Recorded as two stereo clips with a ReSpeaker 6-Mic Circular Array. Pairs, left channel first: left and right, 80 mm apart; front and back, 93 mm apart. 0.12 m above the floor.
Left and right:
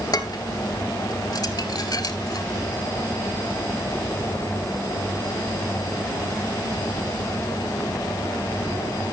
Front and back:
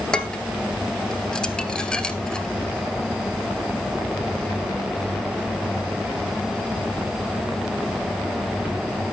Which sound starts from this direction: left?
Dishes clattering, at 0.1 s.